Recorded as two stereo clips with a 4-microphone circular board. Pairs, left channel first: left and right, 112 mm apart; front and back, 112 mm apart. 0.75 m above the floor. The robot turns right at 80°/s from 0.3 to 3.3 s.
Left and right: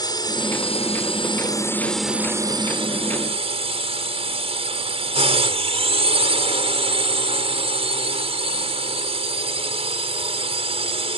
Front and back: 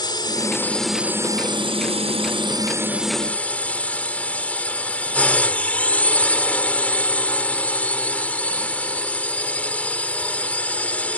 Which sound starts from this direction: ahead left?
A drone, at 0.0 s.